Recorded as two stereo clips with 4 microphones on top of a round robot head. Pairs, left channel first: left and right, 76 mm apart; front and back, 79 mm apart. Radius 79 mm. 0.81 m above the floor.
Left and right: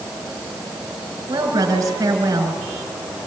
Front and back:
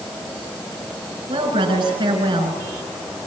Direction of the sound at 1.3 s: 145° right.